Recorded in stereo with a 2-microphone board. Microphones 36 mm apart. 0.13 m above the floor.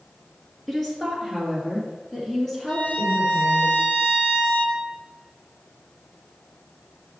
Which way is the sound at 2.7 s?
50° left (ahead or behind).